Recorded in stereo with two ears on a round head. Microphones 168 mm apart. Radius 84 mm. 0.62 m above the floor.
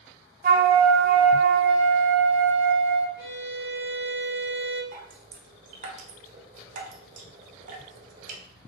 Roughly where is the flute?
Right.